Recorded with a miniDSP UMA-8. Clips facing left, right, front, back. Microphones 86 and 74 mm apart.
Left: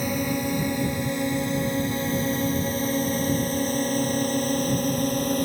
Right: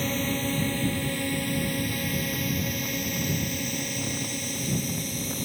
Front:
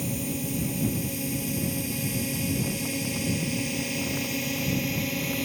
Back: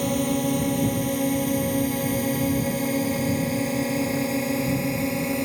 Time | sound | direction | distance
0.0 | a drone | 165° left | ?